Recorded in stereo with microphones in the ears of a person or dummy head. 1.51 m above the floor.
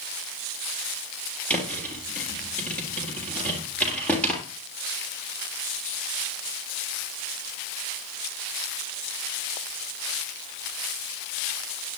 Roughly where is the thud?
Centre.